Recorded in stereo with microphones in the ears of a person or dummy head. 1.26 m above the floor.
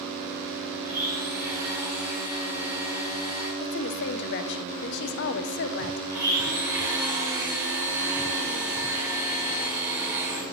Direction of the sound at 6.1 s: 20° right (ahead or behind).